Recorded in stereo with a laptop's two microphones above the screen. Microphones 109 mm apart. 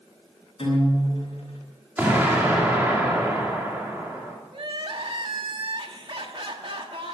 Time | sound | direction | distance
0.6 | a guitar | 55° left (ahead or behind) | 6 m
2.0 | an explosion | 15° right (ahead or behind) | 2.5 m
4.5 | crying | 50° right (ahead or behind) | 1.3 m